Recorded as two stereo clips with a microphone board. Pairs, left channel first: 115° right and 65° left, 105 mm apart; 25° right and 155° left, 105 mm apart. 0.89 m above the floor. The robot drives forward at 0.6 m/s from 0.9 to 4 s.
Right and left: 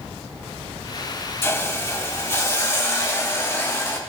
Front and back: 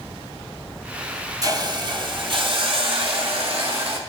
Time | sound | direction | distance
1.4 | a hiss | 170° right | 0.8 m